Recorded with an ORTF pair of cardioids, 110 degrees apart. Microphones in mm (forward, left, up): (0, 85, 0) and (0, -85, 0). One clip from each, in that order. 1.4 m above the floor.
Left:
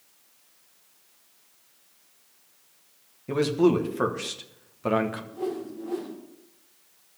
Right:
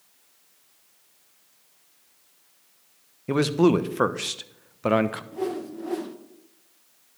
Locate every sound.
3.3 s a man speaking: 30° right, 1.1 m
5.3 s a whoosh: 50° right, 1.6 m